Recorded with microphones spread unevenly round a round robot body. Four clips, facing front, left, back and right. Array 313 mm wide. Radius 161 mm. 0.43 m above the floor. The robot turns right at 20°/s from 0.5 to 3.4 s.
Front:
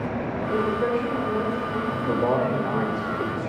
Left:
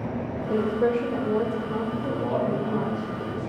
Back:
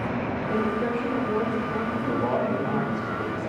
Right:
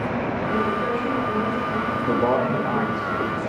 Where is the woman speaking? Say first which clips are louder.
Left 3 dB, front 3 dB; 60° left, 2.5 m; by 2.9 s 105° left, 2.5 m.